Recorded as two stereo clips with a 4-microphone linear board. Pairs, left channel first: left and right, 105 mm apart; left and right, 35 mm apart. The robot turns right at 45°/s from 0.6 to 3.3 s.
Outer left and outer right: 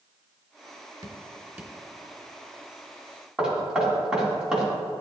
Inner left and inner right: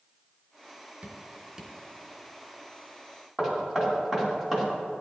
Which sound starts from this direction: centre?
Knocking, at 3.4 s.